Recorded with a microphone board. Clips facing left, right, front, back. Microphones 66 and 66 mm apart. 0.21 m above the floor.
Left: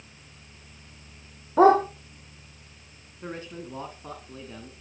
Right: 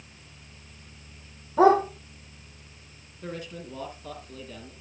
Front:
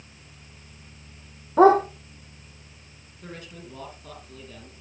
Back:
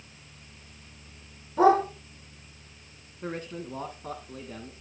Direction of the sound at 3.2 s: 140° left.